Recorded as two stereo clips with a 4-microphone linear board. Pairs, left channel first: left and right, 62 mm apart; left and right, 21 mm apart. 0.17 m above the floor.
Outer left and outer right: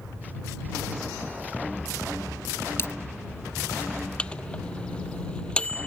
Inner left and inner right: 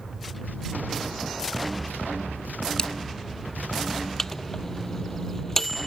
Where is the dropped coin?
45° left (ahead or behind).